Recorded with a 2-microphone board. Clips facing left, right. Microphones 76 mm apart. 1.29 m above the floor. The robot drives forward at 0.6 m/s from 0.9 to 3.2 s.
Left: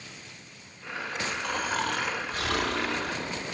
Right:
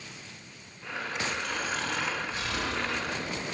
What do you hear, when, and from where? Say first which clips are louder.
1.4 s snoring: left 3 dB; 50° left (ahead or behind), 2.0 m; by 3.4 s 75° left (ahead or behind), 1.5 m